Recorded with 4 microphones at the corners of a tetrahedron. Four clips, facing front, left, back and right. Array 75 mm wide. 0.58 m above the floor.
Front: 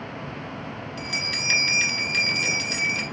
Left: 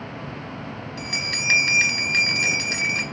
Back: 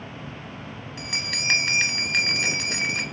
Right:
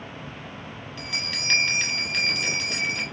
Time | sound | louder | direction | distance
1.0 | a bell | left 4 dB, even | 140° left | 0.6 m